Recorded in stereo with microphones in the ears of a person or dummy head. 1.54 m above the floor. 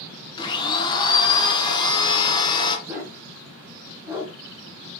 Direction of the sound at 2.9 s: 15° right (ahead or behind).